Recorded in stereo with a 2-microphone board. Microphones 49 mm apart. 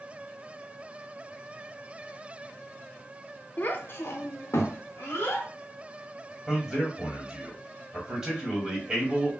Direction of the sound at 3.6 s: 30° left (ahead or behind).